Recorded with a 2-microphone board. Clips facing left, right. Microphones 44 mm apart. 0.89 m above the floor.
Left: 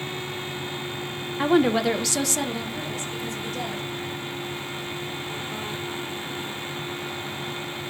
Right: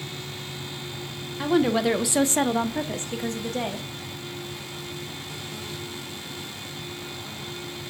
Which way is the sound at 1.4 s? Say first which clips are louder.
Left 2 dB; 25° left (ahead or behind).